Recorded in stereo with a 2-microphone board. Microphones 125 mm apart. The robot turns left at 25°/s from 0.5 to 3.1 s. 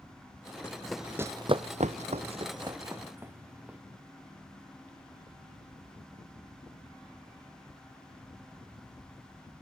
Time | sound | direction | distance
0.6 | running footsteps | 15° left (ahead or behind) | 0.9 m